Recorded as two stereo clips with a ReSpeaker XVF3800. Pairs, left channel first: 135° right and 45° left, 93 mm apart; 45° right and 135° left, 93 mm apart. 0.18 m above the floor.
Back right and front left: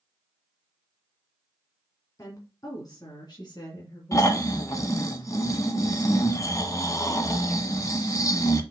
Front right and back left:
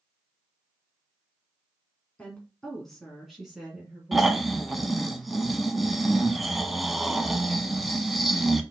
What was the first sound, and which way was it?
A woman speaking, 115° right.